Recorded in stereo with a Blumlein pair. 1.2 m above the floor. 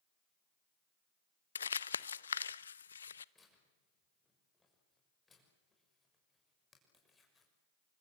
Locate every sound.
1.6 s crumpling: 70° left, 0.6 m
3.4 s tearing paper: 15° left, 6.5 m